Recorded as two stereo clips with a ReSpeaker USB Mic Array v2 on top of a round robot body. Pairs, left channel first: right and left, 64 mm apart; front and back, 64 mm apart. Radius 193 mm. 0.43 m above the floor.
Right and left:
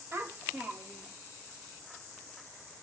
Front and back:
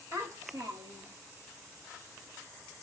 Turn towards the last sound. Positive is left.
turn(degrees=-170)